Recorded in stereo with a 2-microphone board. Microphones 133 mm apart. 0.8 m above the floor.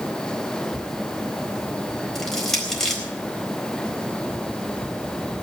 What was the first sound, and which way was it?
Crushing, centre (ahead or behind).